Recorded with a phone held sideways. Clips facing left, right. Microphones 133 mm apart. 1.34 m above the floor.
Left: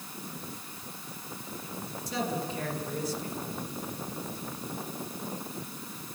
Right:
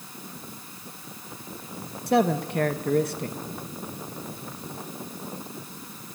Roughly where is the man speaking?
Right.